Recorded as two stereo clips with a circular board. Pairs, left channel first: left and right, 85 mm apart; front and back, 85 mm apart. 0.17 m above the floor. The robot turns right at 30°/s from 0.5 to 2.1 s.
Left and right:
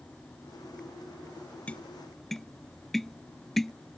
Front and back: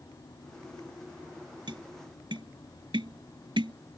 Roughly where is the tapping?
Behind.